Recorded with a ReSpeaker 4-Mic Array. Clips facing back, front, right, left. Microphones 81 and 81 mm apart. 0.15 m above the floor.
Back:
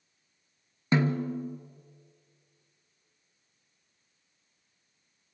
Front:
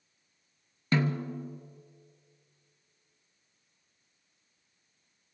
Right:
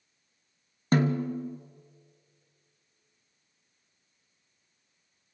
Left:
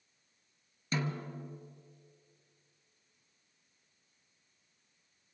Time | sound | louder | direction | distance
0.9 | a snare drum | back 3 dB, right 11 dB | 115° right | 0.9 m